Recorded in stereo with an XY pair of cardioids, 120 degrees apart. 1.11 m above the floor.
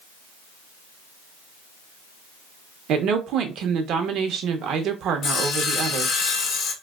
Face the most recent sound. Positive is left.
turn(degrees=50)